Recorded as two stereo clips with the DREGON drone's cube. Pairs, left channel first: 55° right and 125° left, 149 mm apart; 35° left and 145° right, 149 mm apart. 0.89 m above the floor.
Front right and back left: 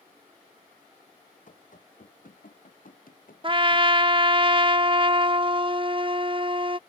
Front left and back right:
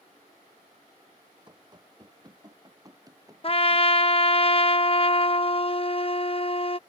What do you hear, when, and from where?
1.5 s running footsteps: 85° right; by 3.9 s 75° right
3.4 s a trumpet: 75° left